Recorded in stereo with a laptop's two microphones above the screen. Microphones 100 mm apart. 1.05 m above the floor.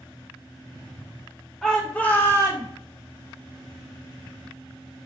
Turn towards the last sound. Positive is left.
turn(degrees=45)  # may be behind; listen again after turning